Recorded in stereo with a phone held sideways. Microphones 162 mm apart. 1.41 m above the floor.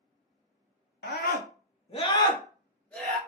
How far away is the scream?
About 0.6 m.